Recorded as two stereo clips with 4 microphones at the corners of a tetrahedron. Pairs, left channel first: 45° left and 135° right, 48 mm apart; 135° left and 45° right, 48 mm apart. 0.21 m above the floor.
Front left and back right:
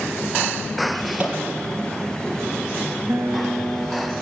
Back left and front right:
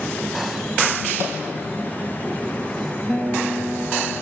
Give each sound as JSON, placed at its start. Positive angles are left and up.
{"t": 1.2, "sound": "a microwave", "azimuth_deg": -70, "distance_m": 4.5}
{"t": 3.1, "sound": "a guitar", "azimuth_deg": -125, "distance_m": 3.5}